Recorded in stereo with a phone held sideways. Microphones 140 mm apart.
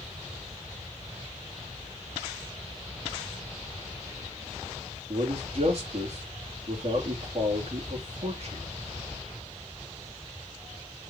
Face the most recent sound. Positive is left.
turn(degrees=-50)  # may be behind; listen again after turning